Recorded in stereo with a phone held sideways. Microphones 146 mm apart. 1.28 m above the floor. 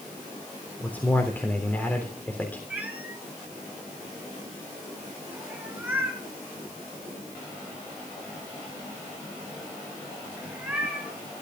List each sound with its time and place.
0.8 s a man speaking: 10° left (ahead or behind), 3.5 m
2.7 s a cat meowing: 10° right (ahead or behind), 5 m